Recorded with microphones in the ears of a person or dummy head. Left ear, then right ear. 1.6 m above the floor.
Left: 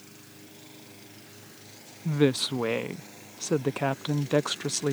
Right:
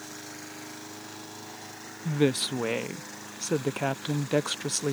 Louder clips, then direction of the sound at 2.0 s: Left 1 dB; centre (ahead or behind).